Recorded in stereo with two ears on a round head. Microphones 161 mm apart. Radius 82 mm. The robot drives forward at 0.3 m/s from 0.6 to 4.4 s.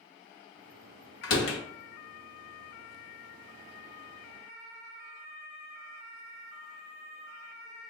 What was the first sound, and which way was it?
A door slam, 70° left (ahead or behind).